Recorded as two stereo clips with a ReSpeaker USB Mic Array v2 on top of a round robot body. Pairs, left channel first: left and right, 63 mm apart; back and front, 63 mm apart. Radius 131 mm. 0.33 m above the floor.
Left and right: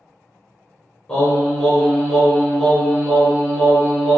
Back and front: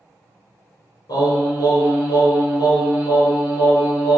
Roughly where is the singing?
Behind.